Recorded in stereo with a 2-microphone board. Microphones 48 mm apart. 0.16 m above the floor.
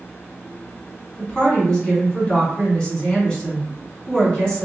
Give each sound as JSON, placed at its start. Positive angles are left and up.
{"t": 1.2, "sound": "a woman speaking", "side_deg": 15, "distance_m": 1.5}